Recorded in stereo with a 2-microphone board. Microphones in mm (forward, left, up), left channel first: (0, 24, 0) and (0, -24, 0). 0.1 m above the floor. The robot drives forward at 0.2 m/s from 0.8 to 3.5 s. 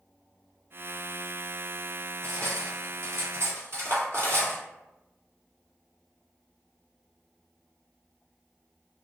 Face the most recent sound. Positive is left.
turn(degrees=-60)  # may be behind; listen again after turning